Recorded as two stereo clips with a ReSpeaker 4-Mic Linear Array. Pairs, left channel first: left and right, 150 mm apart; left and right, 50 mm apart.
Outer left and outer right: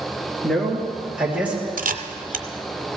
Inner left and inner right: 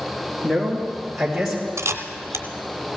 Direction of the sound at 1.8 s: 75° right (ahead or behind).